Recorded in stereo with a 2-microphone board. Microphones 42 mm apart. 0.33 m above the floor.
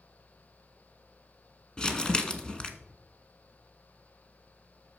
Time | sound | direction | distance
1.8 | crumpling | 20° left (ahead or behind) | 0.9 m